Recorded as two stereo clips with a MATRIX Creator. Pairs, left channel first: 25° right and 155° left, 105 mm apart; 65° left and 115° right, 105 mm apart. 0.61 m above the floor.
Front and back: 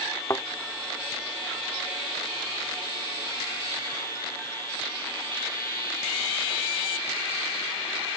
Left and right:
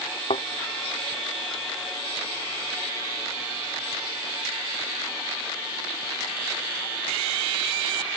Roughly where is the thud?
Ahead left.